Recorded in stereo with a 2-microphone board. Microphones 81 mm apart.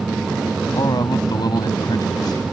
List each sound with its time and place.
0.7 s a man speaking: 55° left (ahead or behind)